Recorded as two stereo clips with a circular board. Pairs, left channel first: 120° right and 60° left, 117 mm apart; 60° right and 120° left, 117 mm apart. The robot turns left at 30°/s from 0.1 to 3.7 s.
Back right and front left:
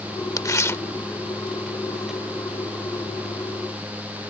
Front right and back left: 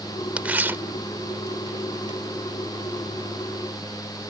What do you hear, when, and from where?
0.4 s tearing paper: 165° right; by 2.2 s 140° left